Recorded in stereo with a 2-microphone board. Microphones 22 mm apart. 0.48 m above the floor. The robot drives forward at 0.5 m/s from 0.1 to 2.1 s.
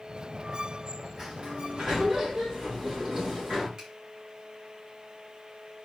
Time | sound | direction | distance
1.2 | a sliding door | 45° right (ahead or behind) | 4.5 m
3.8 | a finger snap | 35° right (ahead or behind) | 4.5 m